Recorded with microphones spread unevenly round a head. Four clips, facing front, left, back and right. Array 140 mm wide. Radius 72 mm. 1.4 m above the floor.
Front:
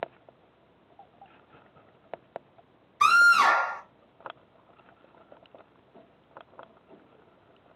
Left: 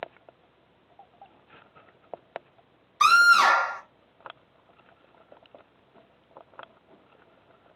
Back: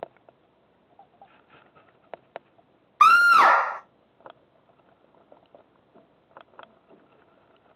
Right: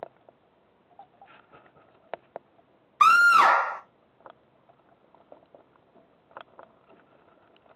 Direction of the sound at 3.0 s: 160° right.